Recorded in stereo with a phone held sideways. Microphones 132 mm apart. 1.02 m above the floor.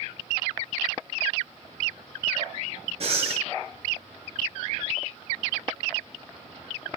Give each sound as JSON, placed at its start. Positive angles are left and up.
{"t": 3.0, "sound": "breathing", "side_deg": -45, "distance_m": 1.1}